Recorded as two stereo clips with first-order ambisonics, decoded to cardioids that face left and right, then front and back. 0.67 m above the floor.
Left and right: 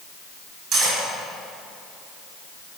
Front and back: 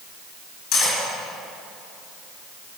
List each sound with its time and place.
0.7 s cutlery clinking: 35° right, 3 m